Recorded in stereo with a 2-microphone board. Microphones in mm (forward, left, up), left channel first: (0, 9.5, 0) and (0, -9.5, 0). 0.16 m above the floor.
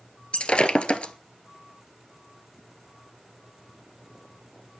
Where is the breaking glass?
70° left (ahead or behind), 1.3 m.